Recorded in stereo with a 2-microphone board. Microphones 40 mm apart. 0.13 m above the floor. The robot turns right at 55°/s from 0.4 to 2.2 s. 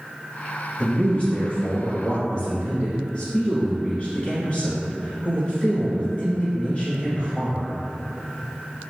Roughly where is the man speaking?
Ahead left.